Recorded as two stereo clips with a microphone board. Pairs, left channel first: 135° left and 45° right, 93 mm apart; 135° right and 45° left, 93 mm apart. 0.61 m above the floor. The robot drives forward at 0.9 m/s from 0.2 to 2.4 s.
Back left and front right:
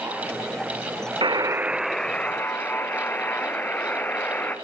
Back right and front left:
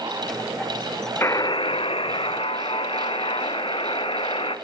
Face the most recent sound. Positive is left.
turn(degrees=-155)